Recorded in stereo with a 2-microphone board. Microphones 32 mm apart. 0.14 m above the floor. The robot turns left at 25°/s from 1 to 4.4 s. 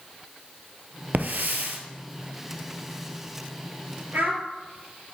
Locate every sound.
1.1 s a hiss: 65° right (ahead or behind), 1.0 m; by 1.8 s 70° right (ahead or behind), 1.0 m
4.1 s a child speaking: 65° right (ahead or behind), 1.7 m; by 4.4 s 60° right (ahead or behind), 1.7 m